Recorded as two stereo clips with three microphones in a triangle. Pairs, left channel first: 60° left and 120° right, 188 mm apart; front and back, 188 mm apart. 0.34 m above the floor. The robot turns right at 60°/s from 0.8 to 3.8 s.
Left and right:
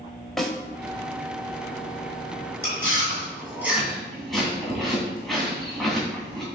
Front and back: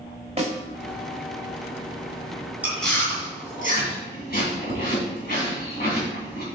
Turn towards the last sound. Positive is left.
turn(degrees=-30)